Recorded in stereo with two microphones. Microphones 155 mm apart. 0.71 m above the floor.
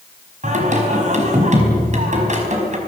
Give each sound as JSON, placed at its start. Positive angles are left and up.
{"t": 0.4, "sound": "singing", "side_deg": -50, "distance_m": 4.5}